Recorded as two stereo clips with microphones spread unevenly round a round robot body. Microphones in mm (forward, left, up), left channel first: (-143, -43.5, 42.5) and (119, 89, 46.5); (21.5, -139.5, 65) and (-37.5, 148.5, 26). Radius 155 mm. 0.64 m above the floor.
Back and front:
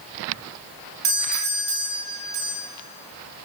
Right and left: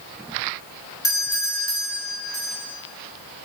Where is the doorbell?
Straight ahead, 6 m.